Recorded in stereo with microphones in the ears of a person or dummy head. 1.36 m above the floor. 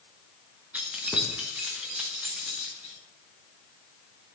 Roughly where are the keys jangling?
Centre.